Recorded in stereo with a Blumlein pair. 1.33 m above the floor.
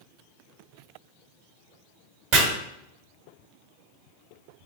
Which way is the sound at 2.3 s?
45° right.